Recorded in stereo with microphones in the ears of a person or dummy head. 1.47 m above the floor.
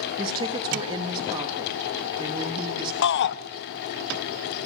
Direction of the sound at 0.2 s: 30° right (ahead or behind).